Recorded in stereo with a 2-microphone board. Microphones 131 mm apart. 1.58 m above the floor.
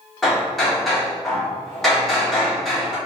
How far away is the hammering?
About 1.0 m.